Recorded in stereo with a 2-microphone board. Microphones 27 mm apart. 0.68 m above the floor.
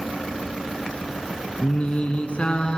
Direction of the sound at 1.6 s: 50° left (ahead or behind).